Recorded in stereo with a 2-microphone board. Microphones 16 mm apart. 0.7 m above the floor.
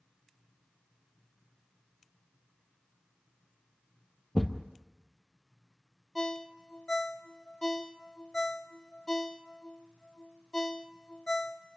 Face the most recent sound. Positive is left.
turn(degrees=45)  # may be behind; listen again after turning